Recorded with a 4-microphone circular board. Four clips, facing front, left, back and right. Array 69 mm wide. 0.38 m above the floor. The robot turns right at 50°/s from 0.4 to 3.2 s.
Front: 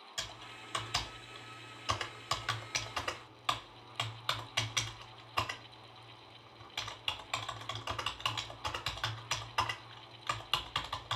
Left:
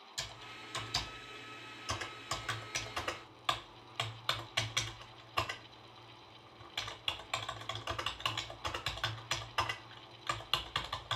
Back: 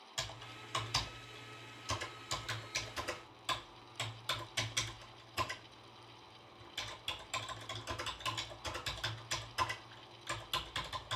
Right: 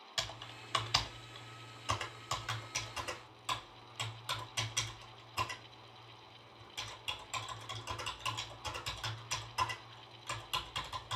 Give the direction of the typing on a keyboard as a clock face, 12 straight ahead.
3 o'clock.